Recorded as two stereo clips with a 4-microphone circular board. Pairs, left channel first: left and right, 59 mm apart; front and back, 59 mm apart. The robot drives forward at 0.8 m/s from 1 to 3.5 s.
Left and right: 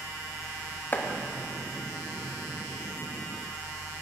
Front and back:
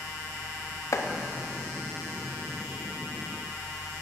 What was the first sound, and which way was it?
Chopping, 30° left.